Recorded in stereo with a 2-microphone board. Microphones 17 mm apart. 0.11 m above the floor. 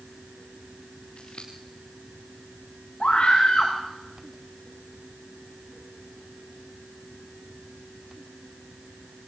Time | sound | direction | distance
1.2 | scissors | 85° left | 4 m
3.0 | a scream | 80° left | 7 m